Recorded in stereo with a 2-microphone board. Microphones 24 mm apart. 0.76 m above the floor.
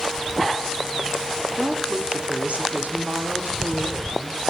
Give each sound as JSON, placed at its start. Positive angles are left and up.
{"t": 1.6, "sound": "a woman speaking", "side_deg": -45, "distance_m": 2.0}